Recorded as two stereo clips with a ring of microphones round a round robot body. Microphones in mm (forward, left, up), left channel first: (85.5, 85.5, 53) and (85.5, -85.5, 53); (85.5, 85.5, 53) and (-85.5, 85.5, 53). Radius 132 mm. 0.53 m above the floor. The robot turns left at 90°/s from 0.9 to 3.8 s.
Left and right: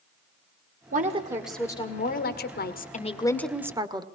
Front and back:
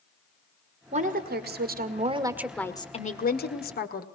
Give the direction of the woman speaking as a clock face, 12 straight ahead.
4 o'clock.